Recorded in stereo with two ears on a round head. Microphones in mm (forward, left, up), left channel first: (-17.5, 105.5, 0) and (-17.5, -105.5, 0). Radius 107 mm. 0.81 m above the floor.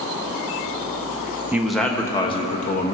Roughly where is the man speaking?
Centre.